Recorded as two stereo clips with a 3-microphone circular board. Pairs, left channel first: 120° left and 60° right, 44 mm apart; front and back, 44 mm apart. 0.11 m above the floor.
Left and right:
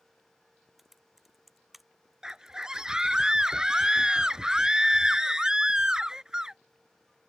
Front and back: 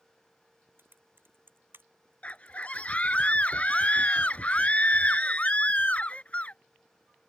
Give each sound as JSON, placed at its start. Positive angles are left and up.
{"t": 0.8, "sound": "typing on a keyboard", "azimuth_deg": -145}
{"t": 2.2, "sound": "a scream", "azimuth_deg": 0}